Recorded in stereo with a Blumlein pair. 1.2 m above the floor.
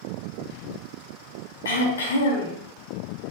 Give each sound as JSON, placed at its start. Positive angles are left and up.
{"t": 1.6, "sound": "throat clearing", "azimuth_deg": 65, "distance_m": 3.5}